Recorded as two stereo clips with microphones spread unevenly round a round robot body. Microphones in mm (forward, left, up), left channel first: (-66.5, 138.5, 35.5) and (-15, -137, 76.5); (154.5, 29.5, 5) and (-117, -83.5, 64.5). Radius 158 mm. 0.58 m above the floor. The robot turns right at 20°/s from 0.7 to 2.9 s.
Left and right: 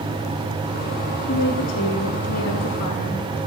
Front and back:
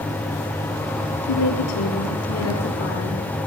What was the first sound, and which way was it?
A woman speaking, 40° left.